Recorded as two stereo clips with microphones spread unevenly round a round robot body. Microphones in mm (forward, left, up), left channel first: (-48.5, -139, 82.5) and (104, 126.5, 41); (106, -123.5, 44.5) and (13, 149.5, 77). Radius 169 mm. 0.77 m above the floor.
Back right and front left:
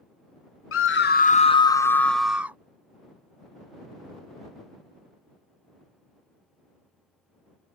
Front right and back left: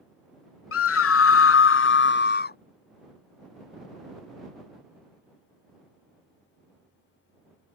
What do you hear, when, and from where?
0.7 s a scream: 80° right; by 2.6 s 20° right